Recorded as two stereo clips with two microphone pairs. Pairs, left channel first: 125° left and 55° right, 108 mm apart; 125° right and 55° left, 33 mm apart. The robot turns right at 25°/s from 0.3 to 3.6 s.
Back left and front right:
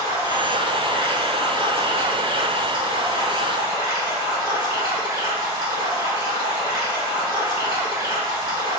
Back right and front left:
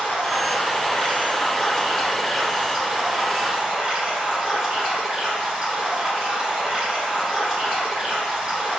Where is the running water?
95° right, 1.8 m; by 8.8 s 10° right, 1.8 m.